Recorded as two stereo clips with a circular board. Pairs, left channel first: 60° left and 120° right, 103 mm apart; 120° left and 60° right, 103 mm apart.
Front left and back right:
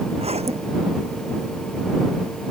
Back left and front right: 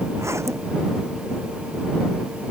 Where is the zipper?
125° right.